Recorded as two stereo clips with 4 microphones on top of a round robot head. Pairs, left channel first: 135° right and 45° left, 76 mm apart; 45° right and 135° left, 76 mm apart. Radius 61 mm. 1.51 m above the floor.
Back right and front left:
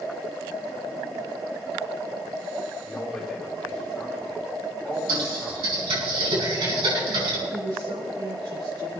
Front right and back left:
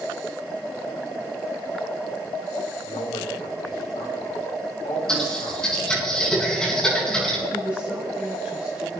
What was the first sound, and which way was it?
A man speaking, 55° right.